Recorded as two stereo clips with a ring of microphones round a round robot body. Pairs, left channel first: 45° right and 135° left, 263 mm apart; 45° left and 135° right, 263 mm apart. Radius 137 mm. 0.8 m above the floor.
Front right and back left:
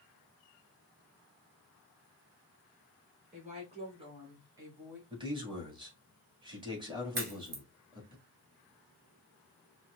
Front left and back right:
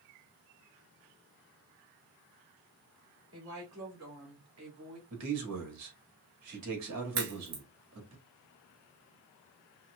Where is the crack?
170° right, 1.8 m.